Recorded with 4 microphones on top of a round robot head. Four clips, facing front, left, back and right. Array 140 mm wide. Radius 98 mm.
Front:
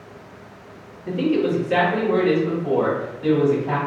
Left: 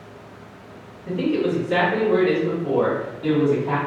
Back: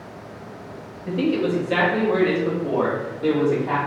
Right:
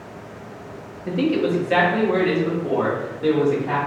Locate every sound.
1.1 s a man speaking: 100° right, 0.8 m; by 3.8 s 130° right, 2 m